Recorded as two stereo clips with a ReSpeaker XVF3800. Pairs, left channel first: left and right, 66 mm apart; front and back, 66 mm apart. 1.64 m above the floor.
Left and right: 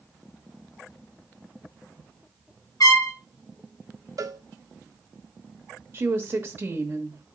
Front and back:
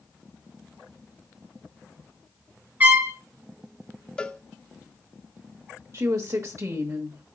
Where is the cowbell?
75° right, 0.6 m.